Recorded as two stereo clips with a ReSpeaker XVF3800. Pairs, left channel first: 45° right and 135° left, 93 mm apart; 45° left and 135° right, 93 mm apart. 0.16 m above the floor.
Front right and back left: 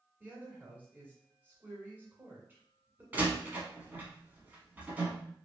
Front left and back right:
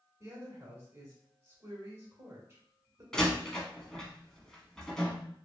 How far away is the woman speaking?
About 1.3 m.